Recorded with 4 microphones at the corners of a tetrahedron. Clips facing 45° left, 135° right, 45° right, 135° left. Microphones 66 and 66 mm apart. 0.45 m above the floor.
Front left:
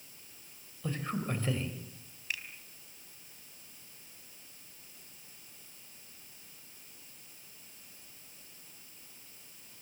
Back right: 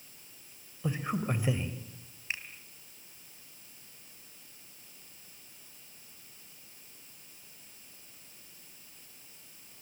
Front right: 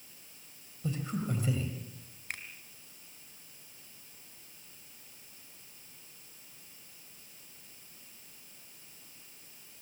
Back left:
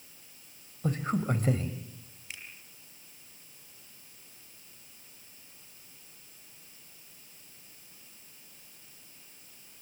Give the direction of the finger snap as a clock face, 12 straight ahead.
3 o'clock.